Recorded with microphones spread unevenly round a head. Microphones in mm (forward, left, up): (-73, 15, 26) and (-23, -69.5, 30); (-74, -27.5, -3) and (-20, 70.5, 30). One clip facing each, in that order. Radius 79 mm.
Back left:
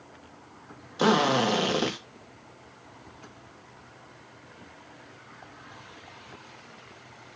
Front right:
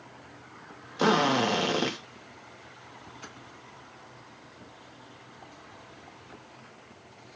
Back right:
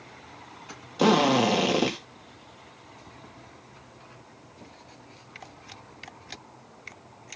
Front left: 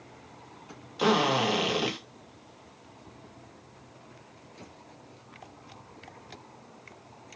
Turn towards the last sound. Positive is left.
turn(degrees=-155)